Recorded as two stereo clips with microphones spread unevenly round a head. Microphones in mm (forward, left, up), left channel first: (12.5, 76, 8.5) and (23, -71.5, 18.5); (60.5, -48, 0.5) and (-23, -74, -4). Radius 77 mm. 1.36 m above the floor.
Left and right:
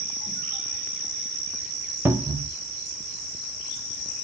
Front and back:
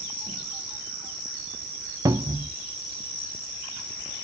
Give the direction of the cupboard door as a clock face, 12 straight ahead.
5 o'clock.